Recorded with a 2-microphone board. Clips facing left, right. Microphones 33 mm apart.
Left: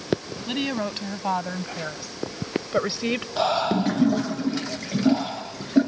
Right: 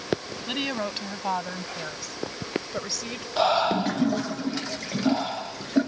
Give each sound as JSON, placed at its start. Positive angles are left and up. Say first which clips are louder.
{"t": 0.5, "sound": "a woman speaking", "louder": "left 2 dB", "side_deg": -5}
{"t": 3.4, "sound": "breathing", "louder": "right 2 dB", "side_deg": -10}